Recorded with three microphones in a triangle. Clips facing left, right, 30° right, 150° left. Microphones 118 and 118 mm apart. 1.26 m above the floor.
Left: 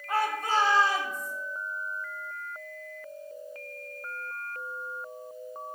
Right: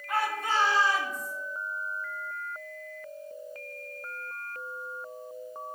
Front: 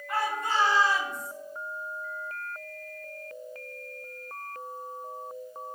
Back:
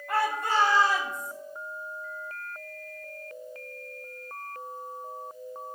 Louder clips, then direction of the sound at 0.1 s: Left 2 dB, back 2 dB; 140° left.